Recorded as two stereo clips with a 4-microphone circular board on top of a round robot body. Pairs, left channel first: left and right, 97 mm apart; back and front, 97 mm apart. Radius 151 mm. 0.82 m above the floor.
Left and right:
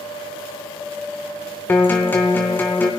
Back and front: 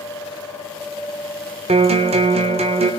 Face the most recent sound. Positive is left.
turn(degrees=20)